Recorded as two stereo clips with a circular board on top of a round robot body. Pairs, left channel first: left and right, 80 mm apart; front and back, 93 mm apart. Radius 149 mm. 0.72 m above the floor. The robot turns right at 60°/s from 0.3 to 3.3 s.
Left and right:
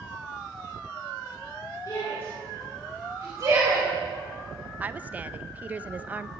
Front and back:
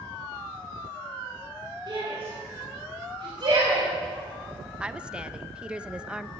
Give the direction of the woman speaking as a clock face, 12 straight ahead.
4 o'clock.